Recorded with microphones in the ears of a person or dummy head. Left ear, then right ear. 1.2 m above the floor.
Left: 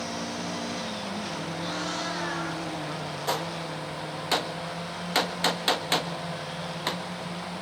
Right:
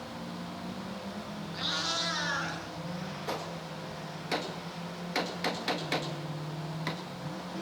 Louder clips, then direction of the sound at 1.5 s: Right 3 dB; 35° right (ahead or behind).